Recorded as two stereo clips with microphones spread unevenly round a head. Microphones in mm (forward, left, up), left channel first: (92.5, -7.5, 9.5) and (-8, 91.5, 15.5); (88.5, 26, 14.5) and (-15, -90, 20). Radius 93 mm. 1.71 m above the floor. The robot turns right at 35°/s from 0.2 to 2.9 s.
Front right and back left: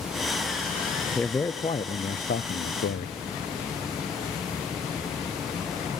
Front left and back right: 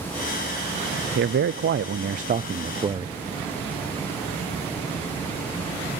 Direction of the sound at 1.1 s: 130° right.